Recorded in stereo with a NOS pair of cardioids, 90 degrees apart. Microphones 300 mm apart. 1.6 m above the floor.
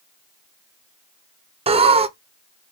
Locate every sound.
1.7 s laughter: 20° right, 0.7 m